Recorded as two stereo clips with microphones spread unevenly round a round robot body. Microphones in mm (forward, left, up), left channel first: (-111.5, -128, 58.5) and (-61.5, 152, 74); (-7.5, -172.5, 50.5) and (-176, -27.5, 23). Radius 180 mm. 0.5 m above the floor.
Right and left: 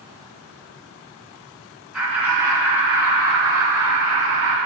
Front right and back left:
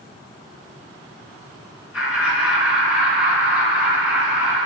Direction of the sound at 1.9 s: 5° right.